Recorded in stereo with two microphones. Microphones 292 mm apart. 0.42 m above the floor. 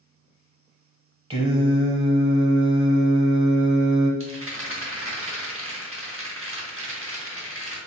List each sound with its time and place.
1.3 s singing: 20° right (ahead or behind), 0.6 m
4.2 s a rattle: 45° right (ahead or behind), 0.8 m